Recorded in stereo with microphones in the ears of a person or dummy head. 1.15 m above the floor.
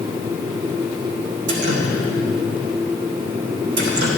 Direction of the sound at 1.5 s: 60° right (ahead or behind).